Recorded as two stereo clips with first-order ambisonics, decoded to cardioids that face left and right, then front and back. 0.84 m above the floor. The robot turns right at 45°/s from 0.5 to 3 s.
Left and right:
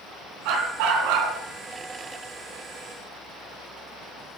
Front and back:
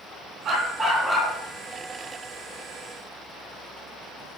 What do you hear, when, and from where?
0.5 s a dog barking: 115° right, 3 m; by 1.3 s 75° right, 3 m